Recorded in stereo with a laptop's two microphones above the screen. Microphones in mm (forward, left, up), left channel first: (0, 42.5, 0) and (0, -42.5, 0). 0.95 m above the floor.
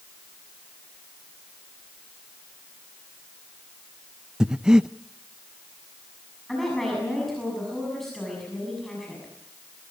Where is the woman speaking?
5° left (ahead or behind), 6.5 m.